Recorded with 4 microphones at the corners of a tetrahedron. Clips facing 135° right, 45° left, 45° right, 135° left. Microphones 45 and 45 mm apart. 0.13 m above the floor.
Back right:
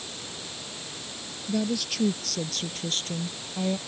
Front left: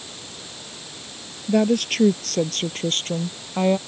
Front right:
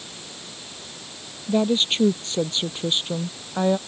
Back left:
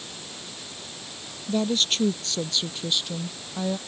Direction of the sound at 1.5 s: 20° left.